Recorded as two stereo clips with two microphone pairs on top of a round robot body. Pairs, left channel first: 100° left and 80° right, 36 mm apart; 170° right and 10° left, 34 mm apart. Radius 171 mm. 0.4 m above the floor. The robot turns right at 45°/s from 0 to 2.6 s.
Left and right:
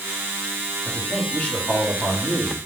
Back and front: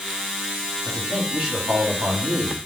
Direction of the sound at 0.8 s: 10° left.